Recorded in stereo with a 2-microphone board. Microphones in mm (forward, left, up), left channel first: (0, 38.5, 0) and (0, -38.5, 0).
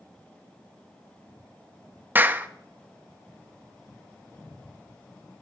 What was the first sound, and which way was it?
A clap, 25° right (ahead or behind).